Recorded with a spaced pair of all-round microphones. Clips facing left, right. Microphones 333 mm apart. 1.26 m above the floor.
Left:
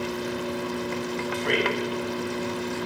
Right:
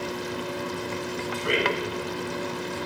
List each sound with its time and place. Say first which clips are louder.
1.3 s a man speaking: even; 15° right (ahead or behind), 8.5 m